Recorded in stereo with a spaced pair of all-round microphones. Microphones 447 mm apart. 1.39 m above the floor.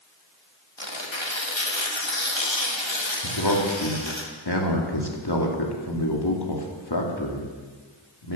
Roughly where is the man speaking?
Left.